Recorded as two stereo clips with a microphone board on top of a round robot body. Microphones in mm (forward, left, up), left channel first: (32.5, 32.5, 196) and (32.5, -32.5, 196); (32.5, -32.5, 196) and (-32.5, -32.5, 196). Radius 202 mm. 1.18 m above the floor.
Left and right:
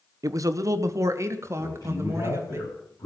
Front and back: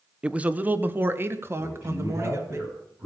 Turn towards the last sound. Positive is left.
turn(degrees=120)